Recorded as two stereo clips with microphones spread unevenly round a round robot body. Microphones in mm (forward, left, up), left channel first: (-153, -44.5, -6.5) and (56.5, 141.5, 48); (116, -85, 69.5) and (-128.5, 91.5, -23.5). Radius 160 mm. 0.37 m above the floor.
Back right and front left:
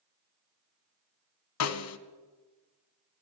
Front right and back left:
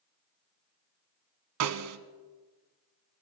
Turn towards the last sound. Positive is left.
turn(degrees=-175)